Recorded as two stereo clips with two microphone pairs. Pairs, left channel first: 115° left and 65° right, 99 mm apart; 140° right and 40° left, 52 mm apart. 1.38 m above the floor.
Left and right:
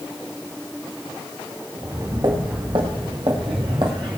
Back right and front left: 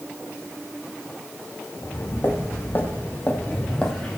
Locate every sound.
1.8 s footsteps: 105° right, 4 m; by 4.2 s 50° right, 2.5 m